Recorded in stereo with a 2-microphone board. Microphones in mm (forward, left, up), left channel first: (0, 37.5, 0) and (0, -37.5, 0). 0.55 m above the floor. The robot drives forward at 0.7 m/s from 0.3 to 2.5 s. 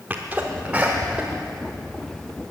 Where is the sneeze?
25° right (ahead or behind), 1.0 m; by 1.3 s 15° right (ahead or behind), 1.6 m.